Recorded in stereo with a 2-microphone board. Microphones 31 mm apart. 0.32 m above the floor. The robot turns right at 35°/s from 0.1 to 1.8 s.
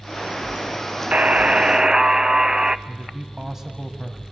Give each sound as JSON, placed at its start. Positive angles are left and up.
{"t": 1.1, "sound": "a buzzer", "side_deg": -45, "distance_m": 0.5}
{"t": 2.9, "sound": "a man speaking", "side_deg": -15, "distance_m": 1.9}